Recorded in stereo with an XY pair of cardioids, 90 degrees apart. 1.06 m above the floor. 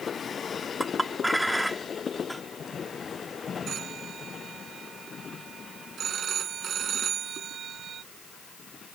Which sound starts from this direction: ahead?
A clink, at 0.8 s.